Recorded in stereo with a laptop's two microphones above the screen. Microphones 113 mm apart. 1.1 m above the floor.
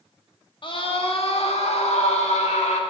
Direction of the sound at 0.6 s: 50° left (ahead or behind).